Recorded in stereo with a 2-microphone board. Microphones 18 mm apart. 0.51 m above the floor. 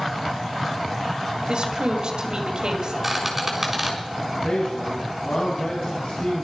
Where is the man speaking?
75° left (ahead or behind), 3.5 m.